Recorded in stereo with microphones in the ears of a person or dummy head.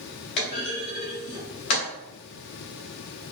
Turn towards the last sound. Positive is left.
turn(degrees=25)  # may be behind; listen again after turning